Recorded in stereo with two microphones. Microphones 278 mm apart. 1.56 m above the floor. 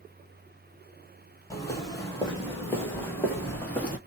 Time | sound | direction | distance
1.5 | footsteps | 10° left (ahead or behind) | 1.9 m